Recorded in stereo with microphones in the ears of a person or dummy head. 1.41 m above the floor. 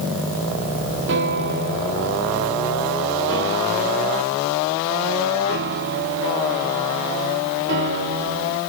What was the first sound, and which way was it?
A piano, 60° right (ahead or behind).